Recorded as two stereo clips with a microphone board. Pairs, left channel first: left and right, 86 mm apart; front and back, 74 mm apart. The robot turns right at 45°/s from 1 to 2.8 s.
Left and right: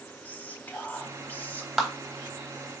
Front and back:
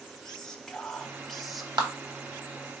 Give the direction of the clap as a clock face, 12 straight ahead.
6 o'clock.